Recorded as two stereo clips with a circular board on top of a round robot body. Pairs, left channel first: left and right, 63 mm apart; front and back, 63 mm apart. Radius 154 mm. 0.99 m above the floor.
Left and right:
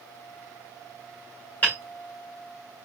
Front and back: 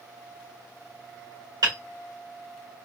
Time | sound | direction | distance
1.6 | hammering | 155° left | 2 m